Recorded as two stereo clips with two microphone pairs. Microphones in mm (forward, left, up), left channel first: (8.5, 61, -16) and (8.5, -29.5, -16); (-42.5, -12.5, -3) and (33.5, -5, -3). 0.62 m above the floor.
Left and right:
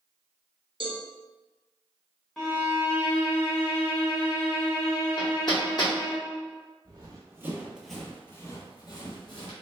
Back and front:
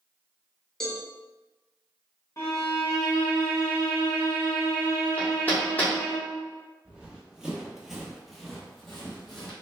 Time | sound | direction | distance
0.8 | a cowbell | 90° right | 0.6 m
2.4 | a violin | 170° left | 0.9 m
5.2 | hammering | 120° left | 0.8 m
6.8 | running footsteps | 70° right | 0.8 m